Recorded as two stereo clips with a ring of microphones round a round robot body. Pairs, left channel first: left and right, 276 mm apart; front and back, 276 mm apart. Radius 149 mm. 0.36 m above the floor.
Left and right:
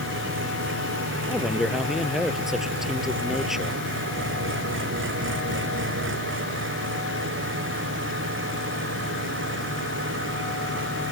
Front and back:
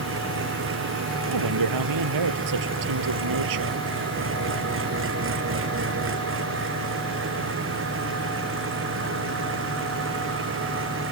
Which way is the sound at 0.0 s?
135° right.